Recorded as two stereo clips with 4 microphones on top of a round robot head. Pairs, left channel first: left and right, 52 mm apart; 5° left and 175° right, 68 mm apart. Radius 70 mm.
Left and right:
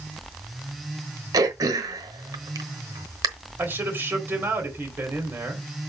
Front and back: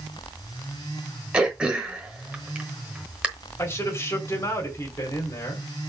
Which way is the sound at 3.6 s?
50° right.